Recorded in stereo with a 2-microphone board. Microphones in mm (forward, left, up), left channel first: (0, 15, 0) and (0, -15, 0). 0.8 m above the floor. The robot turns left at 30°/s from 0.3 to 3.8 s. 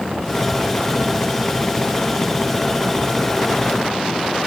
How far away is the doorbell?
No doorbell in this recording.